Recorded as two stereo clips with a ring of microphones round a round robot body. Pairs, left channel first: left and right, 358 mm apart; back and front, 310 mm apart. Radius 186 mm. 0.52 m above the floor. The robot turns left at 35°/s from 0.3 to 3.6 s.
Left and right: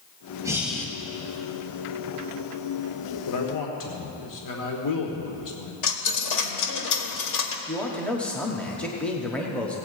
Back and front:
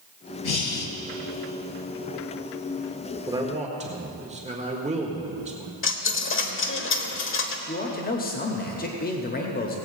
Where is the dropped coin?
130° left, 1.2 m.